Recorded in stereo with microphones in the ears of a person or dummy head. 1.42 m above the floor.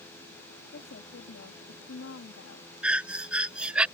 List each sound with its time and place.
0.7 s a woman speaking: 65° left (ahead or behind); by 2.7 s 80° left
2.8 s breathing: 10° right (ahead or behind)